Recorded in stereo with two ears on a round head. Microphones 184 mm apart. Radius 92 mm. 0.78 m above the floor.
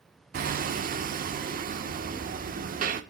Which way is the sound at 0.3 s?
45° right (ahead or behind).